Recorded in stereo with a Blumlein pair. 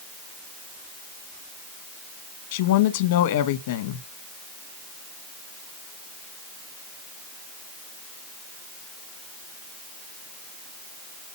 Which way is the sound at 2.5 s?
55° left.